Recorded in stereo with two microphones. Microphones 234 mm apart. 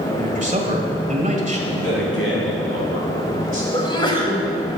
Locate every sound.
0.2 s a man speaking: 30° right (ahead or behind), 1.5 m
1.7 s a man speaking: 65° left (ahead or behind), 3.5 m
3.7 s a sneeze: 20° left (ahead or behind), 1.7 m